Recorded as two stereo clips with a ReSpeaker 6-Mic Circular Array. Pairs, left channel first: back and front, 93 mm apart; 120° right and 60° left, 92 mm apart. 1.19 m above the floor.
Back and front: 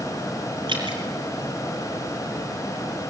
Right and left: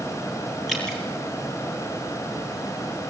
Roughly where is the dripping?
Ahead right.